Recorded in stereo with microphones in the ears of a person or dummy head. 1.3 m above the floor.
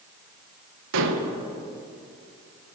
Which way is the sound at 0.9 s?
65° right (ahead or behind).